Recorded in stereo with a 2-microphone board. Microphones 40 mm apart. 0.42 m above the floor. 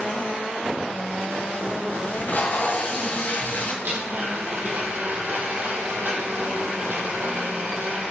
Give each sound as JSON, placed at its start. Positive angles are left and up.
{"t": 2.1, "sound": "tape being pulled", "side_deg": 50, "distance_m": 2.0}
{"t": 3.8, "sound": "a blender", "side_deg": -55, "distance_m": 2.5}